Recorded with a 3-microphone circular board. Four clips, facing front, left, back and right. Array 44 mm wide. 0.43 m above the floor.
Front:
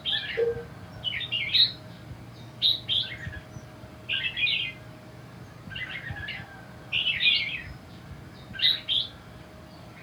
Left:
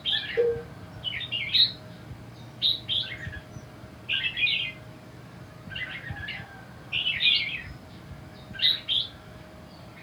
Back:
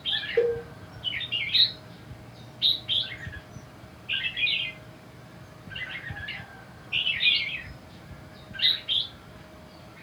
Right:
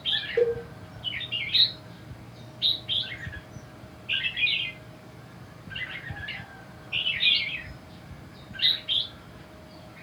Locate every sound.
0.4 s a cowbell: 155° right, 2.5 m